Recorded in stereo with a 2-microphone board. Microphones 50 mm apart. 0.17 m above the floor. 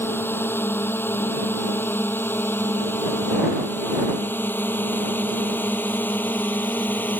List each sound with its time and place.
0.0 s a drone: 50° left (ahead or behind); by 7.2 s 40° left (ahead or behind)